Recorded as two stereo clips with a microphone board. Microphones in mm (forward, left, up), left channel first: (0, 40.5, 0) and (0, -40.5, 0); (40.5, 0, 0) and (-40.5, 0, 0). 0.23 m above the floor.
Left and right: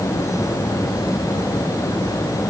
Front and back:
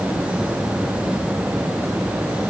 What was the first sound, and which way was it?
Only background noise.